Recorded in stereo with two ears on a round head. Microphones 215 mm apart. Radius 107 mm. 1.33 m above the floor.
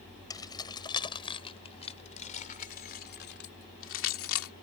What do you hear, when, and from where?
0.3 s keys jangling: 20° left (ahead or behind); by 4.5 s 75° left (ahead or behind)